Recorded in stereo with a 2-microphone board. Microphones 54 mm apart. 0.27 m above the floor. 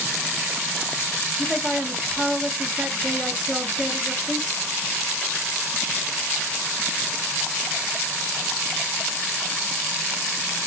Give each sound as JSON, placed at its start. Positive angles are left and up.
{"t": 1.4, "sound": "a man speaking", "side_deg": 5, "distance_m": 1.6}